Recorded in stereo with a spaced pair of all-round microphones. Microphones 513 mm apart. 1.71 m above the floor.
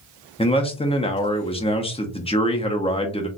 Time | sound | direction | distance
0.4 | a man speaking | 10° left (ahead or behind) | 0.6 m